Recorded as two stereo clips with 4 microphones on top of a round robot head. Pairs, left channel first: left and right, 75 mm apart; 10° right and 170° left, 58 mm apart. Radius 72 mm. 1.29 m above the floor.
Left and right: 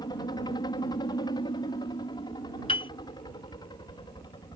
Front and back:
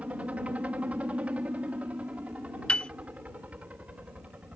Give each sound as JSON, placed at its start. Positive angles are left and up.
{"t": 0.0, "sound": "a helicopter", "azimuth_deg": 105}
{"t": 2.7, "sound": "a piano", "azimuth_deg": 55}